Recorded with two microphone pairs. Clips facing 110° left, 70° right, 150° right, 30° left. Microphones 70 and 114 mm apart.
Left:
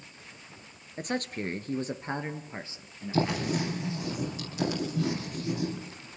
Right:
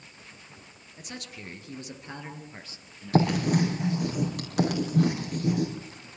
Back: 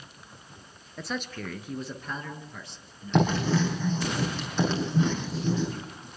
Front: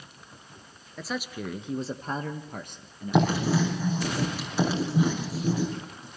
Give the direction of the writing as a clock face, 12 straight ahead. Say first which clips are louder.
Right 5 dB, front 1 dB; 2 o'clock.